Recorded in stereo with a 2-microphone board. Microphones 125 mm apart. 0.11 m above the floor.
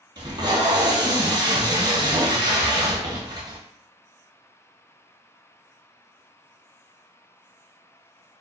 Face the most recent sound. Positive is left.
turn(degrees=-35)  # may be behind; listen again after turning